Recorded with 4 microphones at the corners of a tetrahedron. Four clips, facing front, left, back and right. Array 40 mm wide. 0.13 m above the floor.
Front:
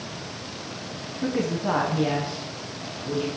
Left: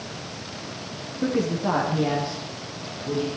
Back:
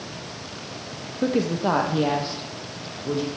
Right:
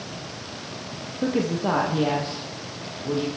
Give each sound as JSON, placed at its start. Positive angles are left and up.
{"t": 1.2, "sound": "a woman speaking", "azimuth_deg": -170, "distance_m": 4.0}